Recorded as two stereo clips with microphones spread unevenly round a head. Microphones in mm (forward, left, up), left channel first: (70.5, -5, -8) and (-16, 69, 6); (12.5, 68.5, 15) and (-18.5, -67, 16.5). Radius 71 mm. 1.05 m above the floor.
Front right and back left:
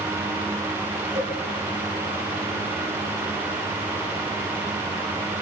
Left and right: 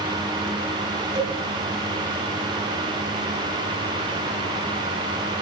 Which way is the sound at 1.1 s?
160° right.